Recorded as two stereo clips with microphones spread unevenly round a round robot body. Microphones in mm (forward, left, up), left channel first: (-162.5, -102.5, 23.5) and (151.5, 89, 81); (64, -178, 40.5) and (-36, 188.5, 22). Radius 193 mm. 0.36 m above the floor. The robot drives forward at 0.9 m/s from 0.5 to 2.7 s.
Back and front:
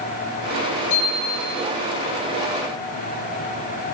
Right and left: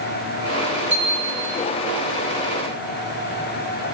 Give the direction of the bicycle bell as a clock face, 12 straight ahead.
6 o'clock.